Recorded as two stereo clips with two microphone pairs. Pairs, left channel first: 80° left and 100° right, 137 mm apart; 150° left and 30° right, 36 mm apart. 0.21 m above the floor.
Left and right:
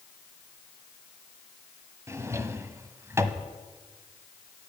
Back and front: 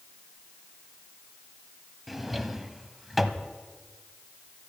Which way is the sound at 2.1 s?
105° right.